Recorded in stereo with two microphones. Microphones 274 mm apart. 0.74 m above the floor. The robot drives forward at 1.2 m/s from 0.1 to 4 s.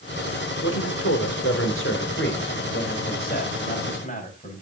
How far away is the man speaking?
About 3 m.